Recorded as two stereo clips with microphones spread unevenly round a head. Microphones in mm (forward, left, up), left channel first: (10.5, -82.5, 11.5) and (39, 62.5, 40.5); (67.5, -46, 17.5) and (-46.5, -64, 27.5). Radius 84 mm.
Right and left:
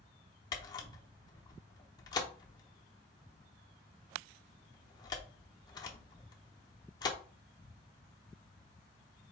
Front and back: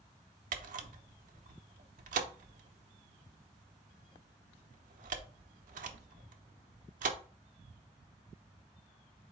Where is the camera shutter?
165° right, 0.7 m.